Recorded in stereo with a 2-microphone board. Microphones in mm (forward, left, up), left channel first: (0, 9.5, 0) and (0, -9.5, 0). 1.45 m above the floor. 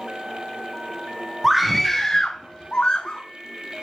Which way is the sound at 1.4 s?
15° right (ahead or behind).